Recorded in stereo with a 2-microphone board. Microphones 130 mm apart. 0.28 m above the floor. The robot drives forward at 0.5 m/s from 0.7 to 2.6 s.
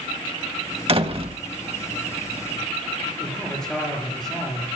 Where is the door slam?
45° right (ahead or behind), 1.0 m; by 1.4 s 50° right (ahead or behind), 1.0 m.